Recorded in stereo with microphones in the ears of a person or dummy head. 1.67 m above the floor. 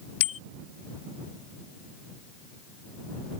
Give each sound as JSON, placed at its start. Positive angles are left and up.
{"t": 0.2, "sound": "a bicycle bell", "side_deg": 85}